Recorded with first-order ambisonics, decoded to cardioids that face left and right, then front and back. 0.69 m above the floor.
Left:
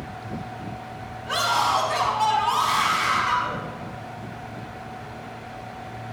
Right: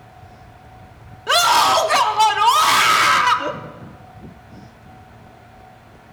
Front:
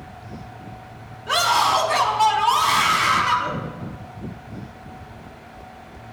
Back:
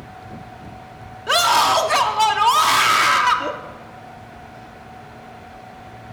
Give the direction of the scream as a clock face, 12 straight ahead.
4 o'clock.